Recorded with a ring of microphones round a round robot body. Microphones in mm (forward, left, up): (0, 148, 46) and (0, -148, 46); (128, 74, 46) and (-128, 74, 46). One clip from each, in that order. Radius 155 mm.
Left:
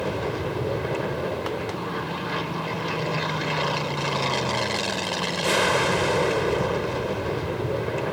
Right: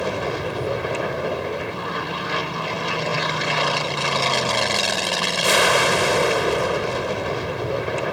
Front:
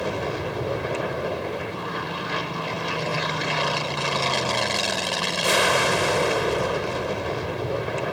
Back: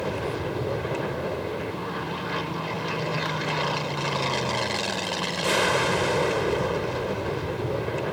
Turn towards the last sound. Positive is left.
turn(degrees=-60)